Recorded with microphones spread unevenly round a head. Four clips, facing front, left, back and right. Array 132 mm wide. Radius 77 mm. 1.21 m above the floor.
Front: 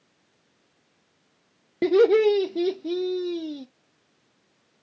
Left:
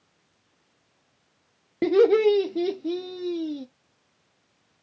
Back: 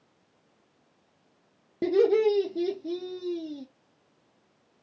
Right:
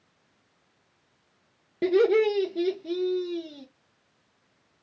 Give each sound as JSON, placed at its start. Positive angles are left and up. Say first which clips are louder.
{"t": 1.8, "sound": "laughter", "louder": "left 3 dB, front 4 dB", "azimuth_deg": 5, "distance_m": 0.7}